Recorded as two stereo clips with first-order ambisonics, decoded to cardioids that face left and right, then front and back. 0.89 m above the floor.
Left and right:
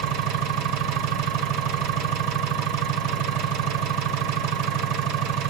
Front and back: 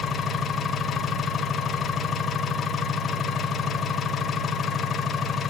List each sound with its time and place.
0.0 s an engine running: 65° right, 1.9 m